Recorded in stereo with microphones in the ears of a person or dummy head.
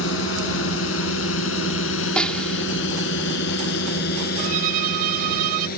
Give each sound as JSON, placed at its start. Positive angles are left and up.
{"t": 0.0, "sound": "a drone", "side_deg": 75}
{"t": 2.2, "sound": "a snare drum", "side_deg": 5}
{"t": 4.4, "sound": "a violin", "side_deg": -55}